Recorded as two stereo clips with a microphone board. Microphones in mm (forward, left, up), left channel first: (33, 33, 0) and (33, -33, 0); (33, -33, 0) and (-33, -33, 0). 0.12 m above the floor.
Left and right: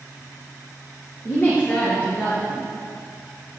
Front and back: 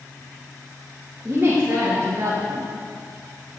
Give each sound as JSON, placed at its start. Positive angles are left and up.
{"t": 1.2, "sound": "a woman speaking", "azimuth_deg": 135, "distance_m": 2.0}